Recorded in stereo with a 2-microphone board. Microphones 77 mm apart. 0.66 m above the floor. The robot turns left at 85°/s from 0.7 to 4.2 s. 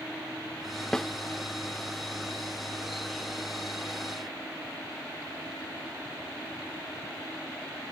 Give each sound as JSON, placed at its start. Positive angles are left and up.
{"t": 0.9, "sound": "a snare drum", "side_deg": 10}